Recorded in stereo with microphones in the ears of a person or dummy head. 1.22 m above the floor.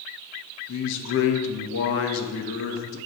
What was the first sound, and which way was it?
A man speaking, 65° left (ahead or behind).